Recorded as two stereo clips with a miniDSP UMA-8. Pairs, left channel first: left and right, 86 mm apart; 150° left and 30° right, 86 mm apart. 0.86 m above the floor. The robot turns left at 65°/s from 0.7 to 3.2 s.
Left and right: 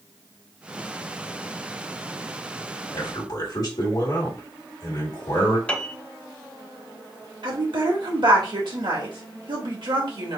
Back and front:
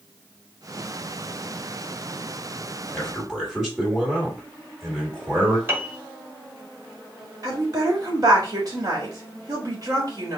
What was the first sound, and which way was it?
A man speaking, 70° left.